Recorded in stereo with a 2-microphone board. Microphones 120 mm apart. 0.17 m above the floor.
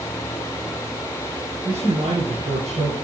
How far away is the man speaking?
About 3 m.